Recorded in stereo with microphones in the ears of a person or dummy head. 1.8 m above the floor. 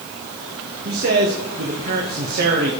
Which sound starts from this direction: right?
A man speaking, at 0.8 s.